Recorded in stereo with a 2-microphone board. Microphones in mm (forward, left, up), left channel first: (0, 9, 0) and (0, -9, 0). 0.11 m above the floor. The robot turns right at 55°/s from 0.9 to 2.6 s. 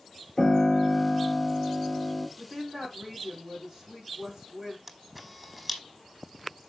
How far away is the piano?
About 1.7 m.